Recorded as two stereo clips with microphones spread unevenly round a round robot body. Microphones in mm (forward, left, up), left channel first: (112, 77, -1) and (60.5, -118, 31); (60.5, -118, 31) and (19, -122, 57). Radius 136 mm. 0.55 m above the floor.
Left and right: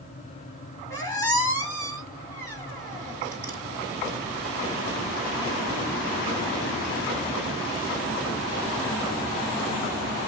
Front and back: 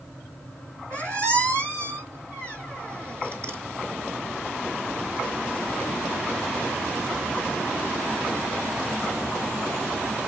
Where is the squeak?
160° left, 1.7 m.